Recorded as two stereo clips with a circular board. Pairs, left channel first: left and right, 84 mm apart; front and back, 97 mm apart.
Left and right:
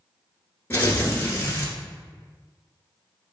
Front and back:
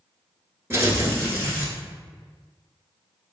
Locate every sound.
0.7 s tearing paper: 135° left, 1.0 m